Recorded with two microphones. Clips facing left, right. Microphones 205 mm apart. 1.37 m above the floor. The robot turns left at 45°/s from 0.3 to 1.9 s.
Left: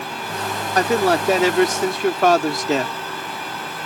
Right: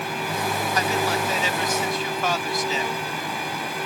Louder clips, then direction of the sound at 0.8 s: Left 10 dB; 120° left.